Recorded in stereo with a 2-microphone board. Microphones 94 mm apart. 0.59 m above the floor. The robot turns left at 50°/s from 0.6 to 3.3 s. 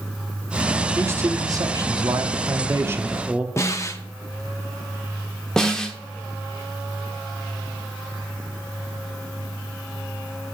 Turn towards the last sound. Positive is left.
turn(degrees=5)  # may be behind; listen again after turning